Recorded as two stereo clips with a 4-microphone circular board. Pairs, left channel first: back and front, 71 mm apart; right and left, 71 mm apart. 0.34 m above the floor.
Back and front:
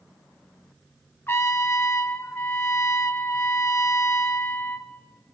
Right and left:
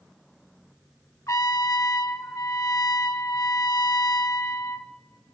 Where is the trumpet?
125° right, 0.6 m.